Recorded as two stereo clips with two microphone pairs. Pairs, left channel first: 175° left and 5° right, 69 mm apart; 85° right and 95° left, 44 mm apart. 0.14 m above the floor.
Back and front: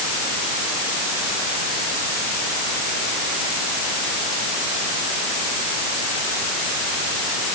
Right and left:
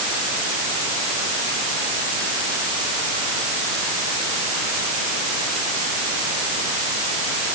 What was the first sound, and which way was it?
Only background noise.